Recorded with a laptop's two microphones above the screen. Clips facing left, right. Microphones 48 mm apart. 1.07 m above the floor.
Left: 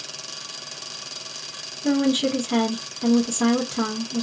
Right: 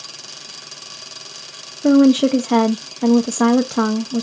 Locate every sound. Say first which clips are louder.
1.8 s a woman speaking: right 9 dB; 80° right, 0.5 m